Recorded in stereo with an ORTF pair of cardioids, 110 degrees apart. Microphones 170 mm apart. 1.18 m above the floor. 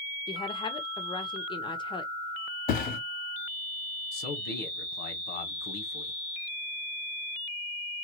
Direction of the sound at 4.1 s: 70° left.